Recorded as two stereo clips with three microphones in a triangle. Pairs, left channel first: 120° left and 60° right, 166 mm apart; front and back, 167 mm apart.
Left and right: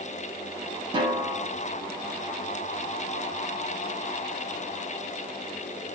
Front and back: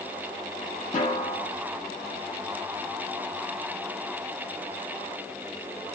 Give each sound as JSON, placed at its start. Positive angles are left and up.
{"t": 0.9, "sound": "a snare drum", "azimuth_deg": -10, "distance_m": 1.2}